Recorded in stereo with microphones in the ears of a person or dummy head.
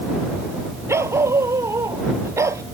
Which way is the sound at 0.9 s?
15° right (ahead or behind).